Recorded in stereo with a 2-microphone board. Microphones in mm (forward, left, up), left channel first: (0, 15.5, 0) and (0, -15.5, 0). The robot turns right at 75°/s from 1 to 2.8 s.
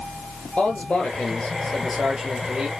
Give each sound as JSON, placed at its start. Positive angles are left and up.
{"t": 0.6, "sound": "a man speaking", "azimuth_deg": 115, "distance_m": 2.5}